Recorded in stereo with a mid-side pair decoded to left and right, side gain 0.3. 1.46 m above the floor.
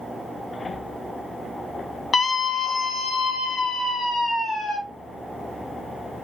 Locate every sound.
2.1 s a scream: 65° left, 1.5 m; by 4.8 s 80° left, 3.5 m